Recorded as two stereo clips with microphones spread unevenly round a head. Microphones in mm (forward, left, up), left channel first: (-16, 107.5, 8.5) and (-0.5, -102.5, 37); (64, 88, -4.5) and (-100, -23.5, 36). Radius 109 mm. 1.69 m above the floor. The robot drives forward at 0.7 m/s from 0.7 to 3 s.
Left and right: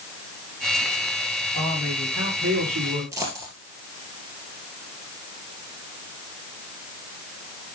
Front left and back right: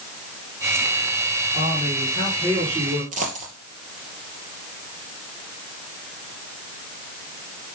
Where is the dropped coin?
150° right, 2.5 m.